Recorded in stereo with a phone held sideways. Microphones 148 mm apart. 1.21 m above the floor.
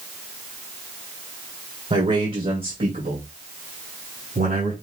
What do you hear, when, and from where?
1.9 s a man speaking: 55° right (ahead or behind), 1.6 m; by 4.7 s 70° right (ahead or behind), 3 m